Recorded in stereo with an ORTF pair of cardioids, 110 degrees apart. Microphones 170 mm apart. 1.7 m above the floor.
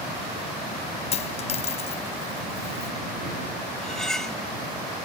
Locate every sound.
1.1 s a dropped coin: 35° left
3.8 s cutlery clinking: 5° left